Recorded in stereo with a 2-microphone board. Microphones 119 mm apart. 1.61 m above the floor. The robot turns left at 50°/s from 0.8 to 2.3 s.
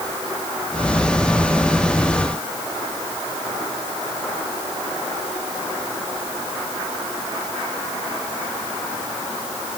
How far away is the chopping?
No chopping in this recording.